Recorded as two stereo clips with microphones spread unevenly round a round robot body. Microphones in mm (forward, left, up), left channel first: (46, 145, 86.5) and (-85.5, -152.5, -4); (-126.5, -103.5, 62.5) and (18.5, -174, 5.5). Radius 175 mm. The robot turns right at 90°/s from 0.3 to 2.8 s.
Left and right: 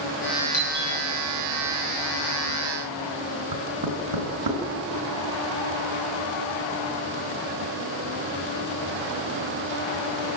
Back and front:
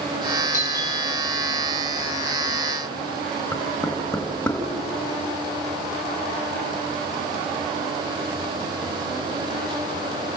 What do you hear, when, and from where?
0.5 s a doorbell: 155° left, 10 m; by 0.9 s 170° right, 10 m
3.5 s knocking: 125° right, 4 m